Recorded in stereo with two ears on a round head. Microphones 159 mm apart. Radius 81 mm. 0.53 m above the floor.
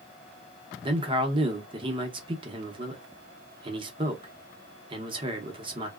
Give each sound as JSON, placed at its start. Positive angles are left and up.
{"t": 0.8, "sound": "a man speaking", "side_deg": -30, "distance_m": 0.7}